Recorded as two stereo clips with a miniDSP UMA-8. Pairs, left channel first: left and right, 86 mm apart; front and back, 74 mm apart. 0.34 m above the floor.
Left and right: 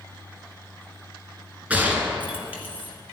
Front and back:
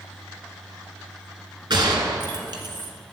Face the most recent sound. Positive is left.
turn(degrees=-160)